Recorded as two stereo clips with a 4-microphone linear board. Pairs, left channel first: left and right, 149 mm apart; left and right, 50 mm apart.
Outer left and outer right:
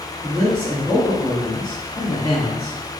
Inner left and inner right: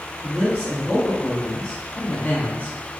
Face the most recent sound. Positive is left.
turn(degrees=30)  # may be behind; listen again after turning